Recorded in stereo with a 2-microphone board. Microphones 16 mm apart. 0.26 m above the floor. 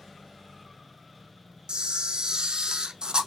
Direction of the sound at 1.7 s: 60° right (ahead or behind).